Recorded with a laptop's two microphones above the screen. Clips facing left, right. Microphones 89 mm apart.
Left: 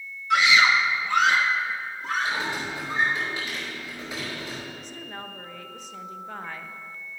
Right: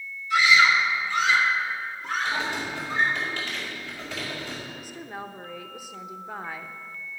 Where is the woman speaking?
10° right (ahead or behind), 0.7 m.